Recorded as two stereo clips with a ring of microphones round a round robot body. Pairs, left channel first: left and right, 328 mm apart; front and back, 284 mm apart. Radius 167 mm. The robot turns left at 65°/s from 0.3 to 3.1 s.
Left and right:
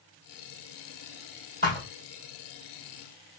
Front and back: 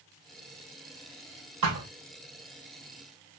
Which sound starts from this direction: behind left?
A thud, at 1.6 s.